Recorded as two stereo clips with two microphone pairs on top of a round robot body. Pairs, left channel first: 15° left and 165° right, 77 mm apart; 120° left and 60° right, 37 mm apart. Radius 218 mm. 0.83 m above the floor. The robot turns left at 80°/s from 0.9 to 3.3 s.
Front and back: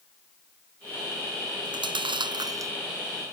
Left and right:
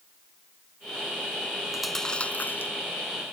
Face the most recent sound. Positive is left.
turn(degrees=95)